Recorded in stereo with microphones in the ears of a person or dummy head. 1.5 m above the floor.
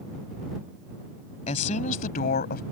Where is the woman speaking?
35° left (ahead or behind); by 2.6 s 50° left (ahead or behind).